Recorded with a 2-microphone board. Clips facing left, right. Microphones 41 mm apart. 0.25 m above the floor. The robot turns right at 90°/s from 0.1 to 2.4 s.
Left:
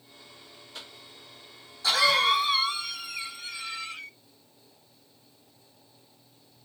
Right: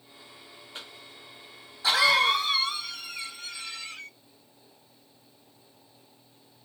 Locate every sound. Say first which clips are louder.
0.8 s a cough: right 1 dB; 25° right (ahead or behind), 1.8 m; by 4.1 s 10° left (ahead or behind), 1.8 m